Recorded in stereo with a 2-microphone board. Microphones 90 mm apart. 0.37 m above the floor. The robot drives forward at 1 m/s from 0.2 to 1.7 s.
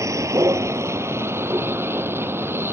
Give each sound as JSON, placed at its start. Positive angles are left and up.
{"t": 0.0, "sound": "a vehicle", "side_deg": -35}